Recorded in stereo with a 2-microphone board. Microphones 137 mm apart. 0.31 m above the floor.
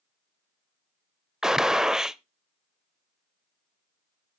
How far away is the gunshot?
About 0.5 m.